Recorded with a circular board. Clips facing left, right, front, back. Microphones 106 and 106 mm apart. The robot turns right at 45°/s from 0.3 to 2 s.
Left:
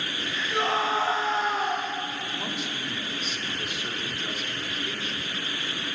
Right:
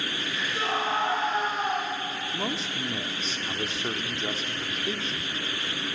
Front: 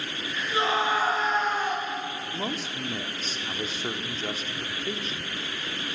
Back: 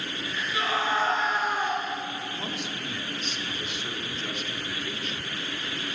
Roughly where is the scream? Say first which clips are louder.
Left 3 dB, front 2 dB; ahead left.